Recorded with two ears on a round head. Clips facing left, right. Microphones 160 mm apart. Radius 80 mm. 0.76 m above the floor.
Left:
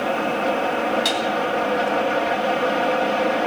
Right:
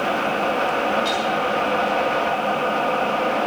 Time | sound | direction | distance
1.1 | dishes clattering | 80° left | 3.5 m